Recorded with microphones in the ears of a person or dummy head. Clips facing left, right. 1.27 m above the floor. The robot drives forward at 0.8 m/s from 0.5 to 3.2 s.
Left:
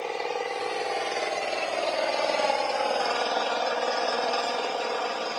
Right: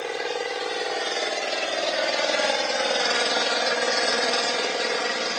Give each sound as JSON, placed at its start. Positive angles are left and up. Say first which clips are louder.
{"t": 0.0, "sound": "an engine running", "louder": "right 2 dB", "side_deg": -10}